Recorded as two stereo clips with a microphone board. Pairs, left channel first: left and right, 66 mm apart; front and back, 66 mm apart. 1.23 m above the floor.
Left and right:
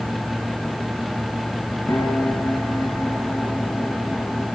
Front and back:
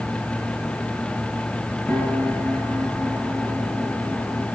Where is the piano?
55° left, 5.5 m.